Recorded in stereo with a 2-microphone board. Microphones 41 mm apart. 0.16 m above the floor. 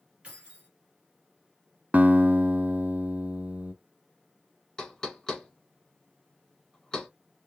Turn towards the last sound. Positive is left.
turn(degrees=15)  # may be behind; listen again after turning